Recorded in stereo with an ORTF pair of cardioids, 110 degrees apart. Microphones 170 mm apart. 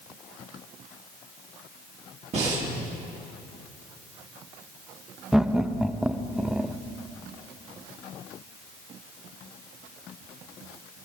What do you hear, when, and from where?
2.3 s breathing: 40° right, 2.5 m
5.3 s laughter: 5° right, 0.6 m